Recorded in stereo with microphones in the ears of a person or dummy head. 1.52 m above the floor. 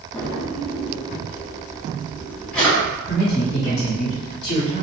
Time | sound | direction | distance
0.1 | a drawer | 5° left (ahead or behind) | 0.9 m
3.0 | a man speaking | 35° left (ahead or behind) | 0.8 m